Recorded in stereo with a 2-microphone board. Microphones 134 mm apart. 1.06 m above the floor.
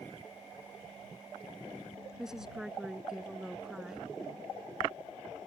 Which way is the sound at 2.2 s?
5° right (ahead or behind).